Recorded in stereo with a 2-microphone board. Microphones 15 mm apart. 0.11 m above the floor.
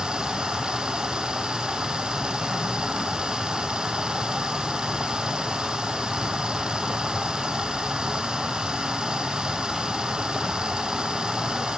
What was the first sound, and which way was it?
Running water, 75° right (ahead or behind).